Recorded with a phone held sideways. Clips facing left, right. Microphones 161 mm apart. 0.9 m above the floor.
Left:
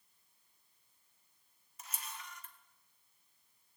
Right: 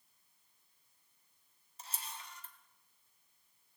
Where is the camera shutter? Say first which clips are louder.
Even; 30° right (ahead or behind), 1.5 m.